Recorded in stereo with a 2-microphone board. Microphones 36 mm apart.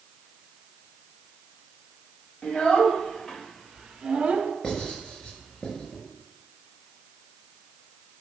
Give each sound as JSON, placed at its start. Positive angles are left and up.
{"t": 2.4, "sound": "a child speaking", "side_deg": 35, "distance_m": 2.5}
{"t": 4.6, "sound": "writing", "side_deg": 15, "distance_m": 4.5}